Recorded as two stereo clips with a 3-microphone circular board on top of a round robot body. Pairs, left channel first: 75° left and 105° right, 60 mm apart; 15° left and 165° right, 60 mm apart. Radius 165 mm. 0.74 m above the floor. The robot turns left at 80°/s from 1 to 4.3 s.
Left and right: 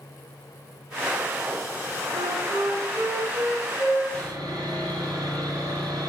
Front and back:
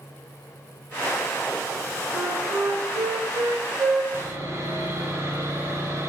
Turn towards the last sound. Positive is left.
turn(degrees=-115)